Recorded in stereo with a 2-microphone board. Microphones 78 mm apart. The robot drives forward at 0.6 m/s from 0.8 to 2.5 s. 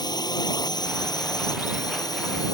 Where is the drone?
60° left (ahead or behind); by 2.5 s 55° left (ahead or behind).